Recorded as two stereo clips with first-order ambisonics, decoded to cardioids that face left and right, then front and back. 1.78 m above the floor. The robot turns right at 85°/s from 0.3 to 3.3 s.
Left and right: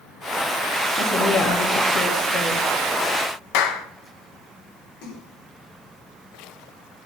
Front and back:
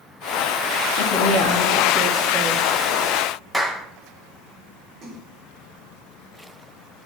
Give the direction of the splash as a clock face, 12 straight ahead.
8 o'clock.